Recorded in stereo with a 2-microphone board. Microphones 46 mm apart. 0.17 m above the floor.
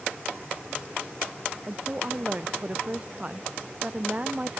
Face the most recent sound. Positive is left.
turn(degrees=-25)  # may be behind; listen again after turning